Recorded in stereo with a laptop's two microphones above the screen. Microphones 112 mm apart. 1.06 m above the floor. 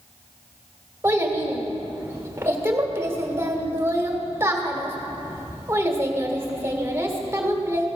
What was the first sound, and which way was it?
A child speaking, 20° right (ahead or behind).